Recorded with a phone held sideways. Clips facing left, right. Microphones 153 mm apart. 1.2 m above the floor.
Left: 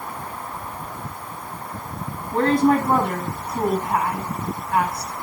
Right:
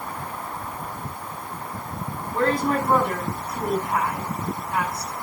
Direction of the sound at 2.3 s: 65° left (ahead or behind).